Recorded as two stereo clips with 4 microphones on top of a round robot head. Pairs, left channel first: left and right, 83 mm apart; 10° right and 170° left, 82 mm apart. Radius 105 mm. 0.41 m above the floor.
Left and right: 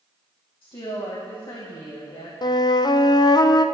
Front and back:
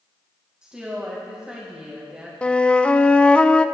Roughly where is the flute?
Left.